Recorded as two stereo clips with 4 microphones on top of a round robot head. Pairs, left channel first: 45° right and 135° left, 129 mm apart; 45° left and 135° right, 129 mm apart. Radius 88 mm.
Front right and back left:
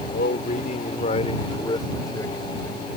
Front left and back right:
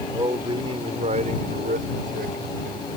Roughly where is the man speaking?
Right.